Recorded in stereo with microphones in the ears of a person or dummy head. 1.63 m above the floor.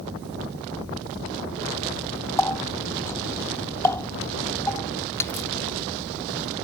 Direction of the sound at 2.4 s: 15° left (ahead or behind).